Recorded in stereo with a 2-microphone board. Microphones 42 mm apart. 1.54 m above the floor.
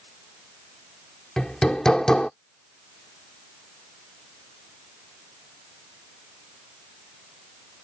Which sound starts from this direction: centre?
Hammering, at 1.4 s.